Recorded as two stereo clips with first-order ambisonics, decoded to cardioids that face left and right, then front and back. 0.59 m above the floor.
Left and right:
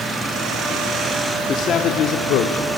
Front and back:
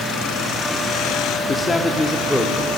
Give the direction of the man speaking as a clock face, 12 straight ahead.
10 o'clock.